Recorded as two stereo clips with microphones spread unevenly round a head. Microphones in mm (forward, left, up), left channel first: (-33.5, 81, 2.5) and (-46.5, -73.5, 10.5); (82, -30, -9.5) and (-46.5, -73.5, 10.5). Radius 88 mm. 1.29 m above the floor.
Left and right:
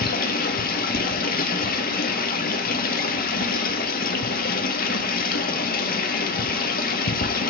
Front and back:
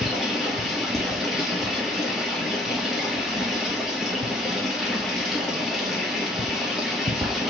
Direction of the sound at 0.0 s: 110° left.